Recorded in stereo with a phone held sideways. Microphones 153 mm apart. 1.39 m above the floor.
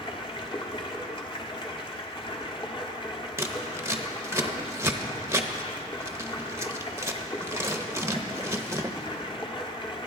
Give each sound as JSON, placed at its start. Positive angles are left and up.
{"t": 0.0, "sound": "running water", "side_deg": 35, "distance_m": 1.5}
{"t": 3.4, "sound": "scissors", "side_deg": -20, "distance_m": 0.9}